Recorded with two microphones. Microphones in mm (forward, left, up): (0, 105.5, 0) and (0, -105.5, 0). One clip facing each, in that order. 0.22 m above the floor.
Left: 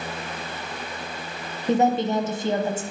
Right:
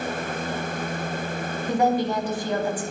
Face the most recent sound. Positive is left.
turn(degrees=25)  # may be behind; listen again after turning